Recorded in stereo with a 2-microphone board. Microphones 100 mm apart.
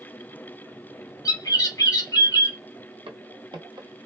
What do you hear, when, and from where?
1.2 s a bird: 35° left (ahead or behind), 1.0 m
3.1 s footsteps: 65° right (ahead or behind), 1.0 m; by 4.1 s 30° right (ahead or behind), 0.6 m